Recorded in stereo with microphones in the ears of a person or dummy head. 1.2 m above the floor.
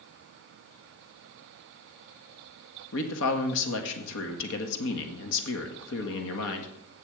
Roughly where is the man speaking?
Left.